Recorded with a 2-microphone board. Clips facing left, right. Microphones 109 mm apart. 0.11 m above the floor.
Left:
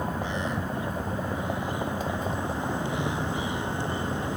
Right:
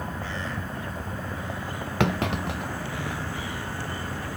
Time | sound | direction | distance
0.0 | a vehicle | 20° left (ahead or behind) | ?
2.0 | a clunk | 80° right | ?